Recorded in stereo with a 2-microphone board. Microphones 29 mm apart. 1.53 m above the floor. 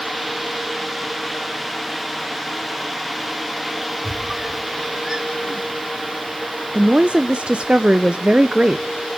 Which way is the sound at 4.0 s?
15° right (ahead or behind).